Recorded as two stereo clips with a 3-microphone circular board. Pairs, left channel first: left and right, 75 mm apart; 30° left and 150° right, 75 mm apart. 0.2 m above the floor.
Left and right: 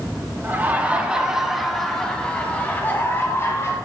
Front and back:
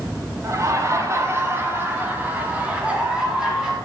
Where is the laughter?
140° right, 1.8 m; by 3.7 s 130° left, 2 m.